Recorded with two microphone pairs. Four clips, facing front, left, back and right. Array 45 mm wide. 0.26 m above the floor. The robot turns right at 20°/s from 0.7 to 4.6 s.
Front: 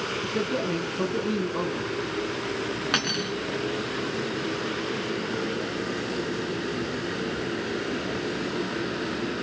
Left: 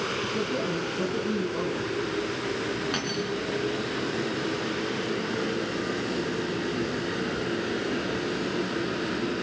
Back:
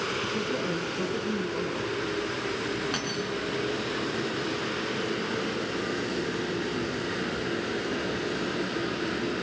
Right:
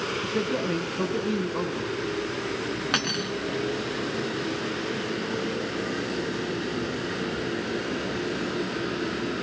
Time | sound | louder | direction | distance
0.2 | a man speaking | right 1 dB, front 2 dB | 55° right | 2.5 m
2.9 | cutlery clinking | right 2 dB, front 4 dB | 40° right | 1.7 m